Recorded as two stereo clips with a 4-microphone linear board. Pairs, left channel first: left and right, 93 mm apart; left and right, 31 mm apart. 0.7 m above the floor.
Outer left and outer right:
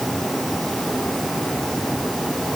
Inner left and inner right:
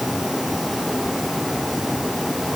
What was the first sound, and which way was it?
Only background noise.